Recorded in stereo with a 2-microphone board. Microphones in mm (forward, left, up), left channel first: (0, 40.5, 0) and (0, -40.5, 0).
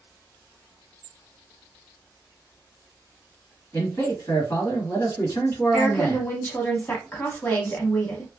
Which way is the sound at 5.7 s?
25° left (ahead or behind).